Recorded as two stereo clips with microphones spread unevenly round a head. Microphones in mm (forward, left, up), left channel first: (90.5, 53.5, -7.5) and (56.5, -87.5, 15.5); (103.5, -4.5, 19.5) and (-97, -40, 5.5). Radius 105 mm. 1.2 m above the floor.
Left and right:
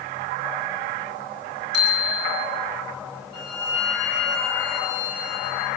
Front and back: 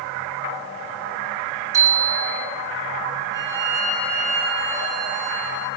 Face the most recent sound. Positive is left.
turn(degrees=115)